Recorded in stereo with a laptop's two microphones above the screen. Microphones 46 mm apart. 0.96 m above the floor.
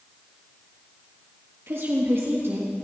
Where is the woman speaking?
65° right (ahead or behind), 1.6 m.